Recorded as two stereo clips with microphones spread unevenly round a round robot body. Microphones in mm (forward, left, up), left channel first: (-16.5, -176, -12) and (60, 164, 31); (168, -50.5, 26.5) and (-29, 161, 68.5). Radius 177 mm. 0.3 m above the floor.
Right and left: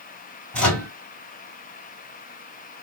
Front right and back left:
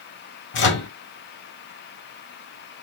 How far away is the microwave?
About 1.7 m.